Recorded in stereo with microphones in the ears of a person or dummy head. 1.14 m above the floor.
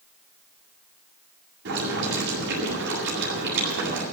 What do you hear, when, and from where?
1.6 s boiling: 65° right (ahead or behind), 8 m